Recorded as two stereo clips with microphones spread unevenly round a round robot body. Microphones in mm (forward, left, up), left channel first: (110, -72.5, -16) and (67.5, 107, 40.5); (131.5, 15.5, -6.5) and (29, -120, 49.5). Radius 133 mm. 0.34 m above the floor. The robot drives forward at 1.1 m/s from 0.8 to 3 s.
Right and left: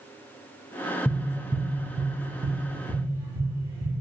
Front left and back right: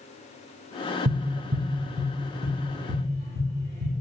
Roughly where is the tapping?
Behind.